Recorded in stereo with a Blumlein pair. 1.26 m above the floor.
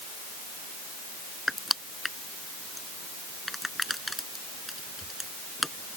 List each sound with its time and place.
1.5 s crushing: 5° left